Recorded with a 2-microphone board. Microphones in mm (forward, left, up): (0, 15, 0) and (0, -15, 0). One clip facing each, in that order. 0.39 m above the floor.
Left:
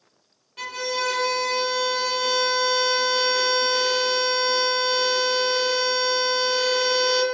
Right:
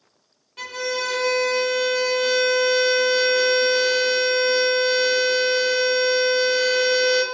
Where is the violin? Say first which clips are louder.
Right 1 dB; 5° right (ahead or behind), 0.6 m.